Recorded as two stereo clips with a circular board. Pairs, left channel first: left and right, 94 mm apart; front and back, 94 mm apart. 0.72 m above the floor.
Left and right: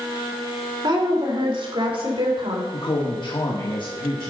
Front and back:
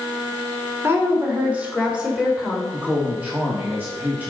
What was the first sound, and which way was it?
A woman speaking, 115° right.